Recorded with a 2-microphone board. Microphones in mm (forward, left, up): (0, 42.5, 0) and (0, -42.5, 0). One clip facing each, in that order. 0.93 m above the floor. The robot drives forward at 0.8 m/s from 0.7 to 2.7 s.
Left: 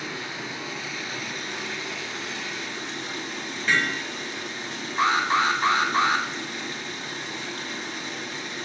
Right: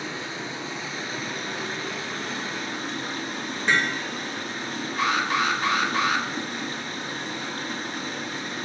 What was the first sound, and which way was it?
Running water, 30° right (ahead or behind).